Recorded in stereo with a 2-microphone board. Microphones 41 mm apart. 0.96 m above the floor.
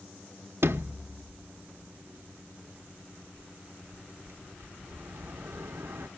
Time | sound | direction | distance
0.6 | a sliding door | 80° right | 1.0 m